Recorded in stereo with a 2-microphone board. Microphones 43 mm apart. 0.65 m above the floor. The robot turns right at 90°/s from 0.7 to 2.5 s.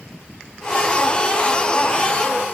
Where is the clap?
No clap in this recording.